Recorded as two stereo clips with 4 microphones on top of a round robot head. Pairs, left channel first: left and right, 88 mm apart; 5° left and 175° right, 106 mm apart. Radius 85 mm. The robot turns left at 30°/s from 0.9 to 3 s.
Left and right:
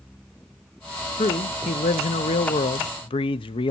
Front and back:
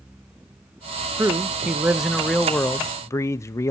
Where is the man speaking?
120° left, 0.5 m; by 3.7 s 70° left, 0.5 m.